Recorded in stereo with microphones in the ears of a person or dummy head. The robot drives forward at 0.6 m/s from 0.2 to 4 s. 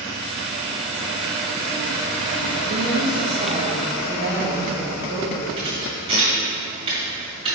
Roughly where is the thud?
Right.